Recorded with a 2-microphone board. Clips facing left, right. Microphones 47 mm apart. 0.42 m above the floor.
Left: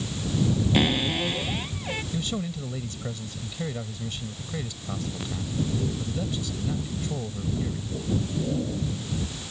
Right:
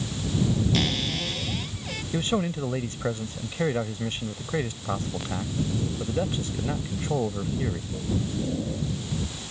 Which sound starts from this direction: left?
A cupboard door, at 0.7 s.